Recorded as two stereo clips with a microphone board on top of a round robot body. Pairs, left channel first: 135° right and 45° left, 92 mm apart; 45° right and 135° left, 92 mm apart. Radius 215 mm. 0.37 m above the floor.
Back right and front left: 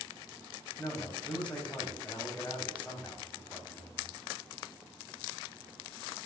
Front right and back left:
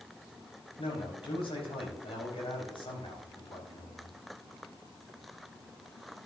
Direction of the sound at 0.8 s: 60° right.